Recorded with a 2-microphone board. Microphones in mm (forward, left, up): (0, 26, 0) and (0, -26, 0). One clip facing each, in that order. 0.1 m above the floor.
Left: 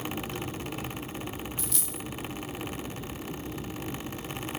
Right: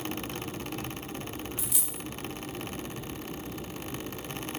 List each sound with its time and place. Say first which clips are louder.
1.6 s a dropped coin: left 2 dB; 10° right (ahead or behind), 0.6 m